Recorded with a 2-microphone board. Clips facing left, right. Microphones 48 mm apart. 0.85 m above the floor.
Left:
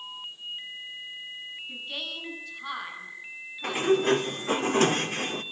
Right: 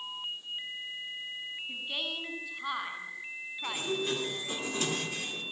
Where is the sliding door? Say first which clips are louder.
Left 10 dB; 50° left (ahead or behind), 2 m.